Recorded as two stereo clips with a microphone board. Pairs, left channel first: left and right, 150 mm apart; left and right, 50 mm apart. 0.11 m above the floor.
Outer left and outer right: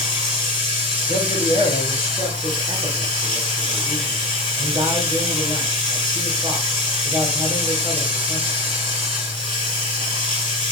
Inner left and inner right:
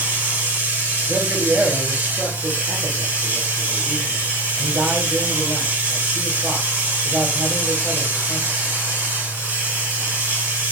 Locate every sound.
0.0 s running water: 40° right (ahead or behind), 2.0 m
1.1 s a man speaking: 30° right (ahead or behind), 2 m